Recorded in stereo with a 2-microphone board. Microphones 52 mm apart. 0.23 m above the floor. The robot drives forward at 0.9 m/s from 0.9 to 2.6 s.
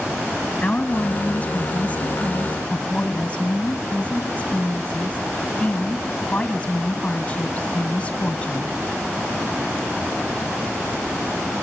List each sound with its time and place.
0.6 s a woman speaking: 25° left (ahead or behind), 1.6 m